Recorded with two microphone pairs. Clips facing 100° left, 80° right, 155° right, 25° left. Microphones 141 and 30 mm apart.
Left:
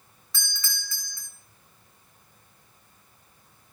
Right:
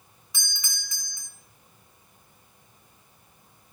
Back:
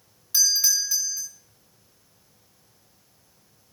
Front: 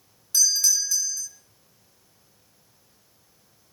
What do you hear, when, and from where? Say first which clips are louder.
0.3 s a doorbell: left 2 dB, even; 105° right, 1.4 m